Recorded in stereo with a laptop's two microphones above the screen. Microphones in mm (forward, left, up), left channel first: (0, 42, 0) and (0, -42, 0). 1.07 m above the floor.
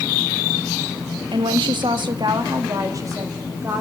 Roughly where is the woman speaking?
Right.